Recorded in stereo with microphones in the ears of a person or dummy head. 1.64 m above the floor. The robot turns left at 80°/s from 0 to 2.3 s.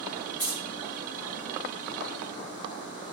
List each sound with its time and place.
0.4 s keys jangling: 25° left (ahead or behind), 1.3 m; by 0.6 s 40° left (ahead or behind), 1.3 m